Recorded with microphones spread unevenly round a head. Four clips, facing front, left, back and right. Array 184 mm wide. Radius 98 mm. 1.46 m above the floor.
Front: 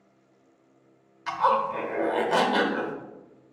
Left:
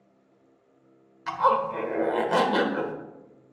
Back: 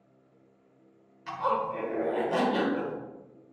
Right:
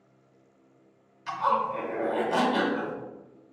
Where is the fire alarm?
No fire alarm in this recording.